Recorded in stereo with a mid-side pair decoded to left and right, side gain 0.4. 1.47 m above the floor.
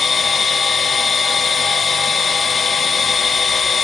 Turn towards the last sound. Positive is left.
turn(degrees=45)